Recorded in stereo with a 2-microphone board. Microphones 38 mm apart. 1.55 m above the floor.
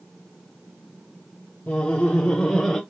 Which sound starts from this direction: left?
Laughter, at 1.7 s.